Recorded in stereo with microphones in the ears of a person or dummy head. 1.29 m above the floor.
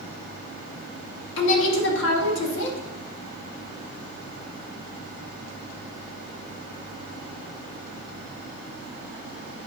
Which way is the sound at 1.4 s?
75° left (ahead or behind).